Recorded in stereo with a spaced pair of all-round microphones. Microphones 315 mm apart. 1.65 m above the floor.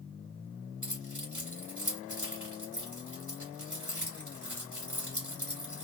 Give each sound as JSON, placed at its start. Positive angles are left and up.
{"t": 0.8, "sound": "keys jangling", "side_deg": -65, "distance_m": 3.0}